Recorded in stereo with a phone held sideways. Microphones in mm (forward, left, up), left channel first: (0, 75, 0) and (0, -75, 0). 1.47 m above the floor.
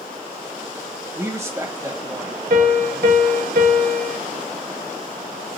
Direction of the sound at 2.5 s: 80° right.